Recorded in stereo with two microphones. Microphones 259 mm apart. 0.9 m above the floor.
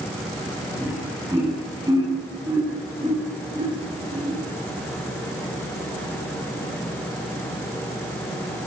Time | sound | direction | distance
0.8 | laughter | 5° right (ahead or behind) | 7.5 m